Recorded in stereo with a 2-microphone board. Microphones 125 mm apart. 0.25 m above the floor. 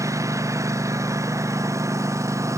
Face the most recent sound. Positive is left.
turn(degrees=-25)  # may be behind; listen again after turning